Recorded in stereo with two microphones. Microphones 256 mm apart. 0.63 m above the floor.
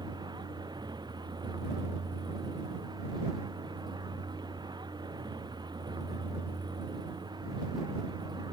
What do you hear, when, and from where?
0.0 s a vehicle: 15° right (ahead or behind)